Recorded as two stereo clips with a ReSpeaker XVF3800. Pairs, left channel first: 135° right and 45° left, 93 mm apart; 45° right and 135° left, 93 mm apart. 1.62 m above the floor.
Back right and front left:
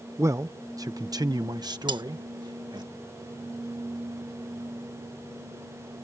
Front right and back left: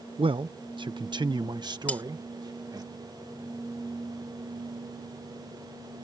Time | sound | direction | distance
0.2 | a man speaking | 105° left | ?
1.9 | cutlery clinking | 25° left | ?